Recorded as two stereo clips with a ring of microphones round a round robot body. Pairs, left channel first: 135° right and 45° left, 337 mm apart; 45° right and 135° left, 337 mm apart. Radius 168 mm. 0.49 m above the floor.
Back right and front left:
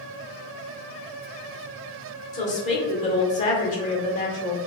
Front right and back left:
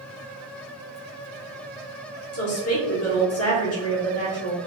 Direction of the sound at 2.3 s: 75° right.